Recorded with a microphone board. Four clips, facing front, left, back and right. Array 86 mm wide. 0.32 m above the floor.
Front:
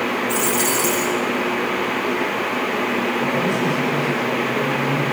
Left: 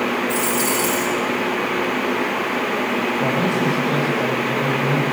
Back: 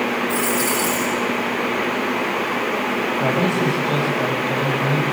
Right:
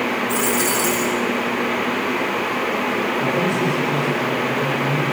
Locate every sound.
0.3 s a dropped coin: 5° left, 7.5 m
3.2 s a man speaking: 150° left, 9.5 m